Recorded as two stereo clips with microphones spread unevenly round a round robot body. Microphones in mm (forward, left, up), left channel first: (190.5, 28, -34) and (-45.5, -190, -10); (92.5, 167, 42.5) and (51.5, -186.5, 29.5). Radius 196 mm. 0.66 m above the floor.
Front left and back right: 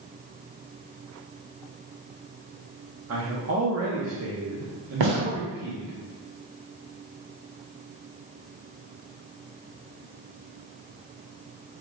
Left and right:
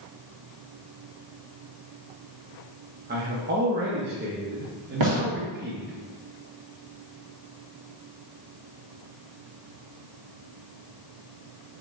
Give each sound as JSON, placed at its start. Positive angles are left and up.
{"t": 3.1, "sound": "a man speaking", "azimuth_deg": -135, "distance_m": 0.8}
{"t": 5.0, "sound": "a gunshot", "azimuth_deg": -135, "distance_m": 1.7}